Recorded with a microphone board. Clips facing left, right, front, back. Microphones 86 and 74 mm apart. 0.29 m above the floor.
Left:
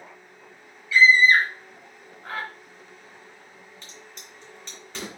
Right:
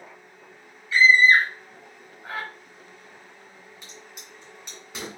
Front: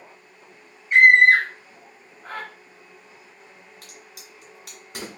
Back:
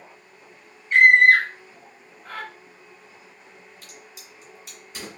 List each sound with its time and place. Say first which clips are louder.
0.9 s a scream: even, front 1 dB; 65° right, 1.3 m; by 2.5 s 10° right, 1.4 m
3.8 s a crack: even, even; 15° right, 2 m